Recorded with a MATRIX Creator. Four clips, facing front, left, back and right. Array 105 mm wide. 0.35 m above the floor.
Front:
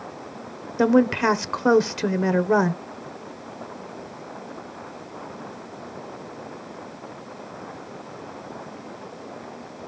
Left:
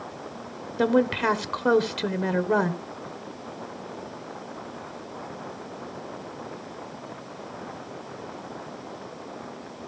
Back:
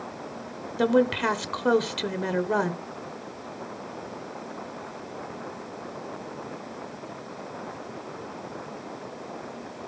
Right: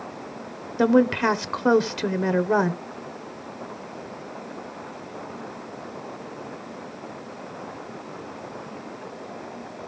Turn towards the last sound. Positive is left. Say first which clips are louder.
# right 3 dB, front 4 dB
turn(degrees=-25)